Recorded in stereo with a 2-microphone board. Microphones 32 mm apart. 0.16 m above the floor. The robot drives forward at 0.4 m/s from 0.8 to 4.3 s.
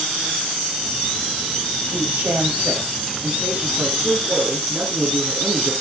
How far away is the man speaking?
About 6 m.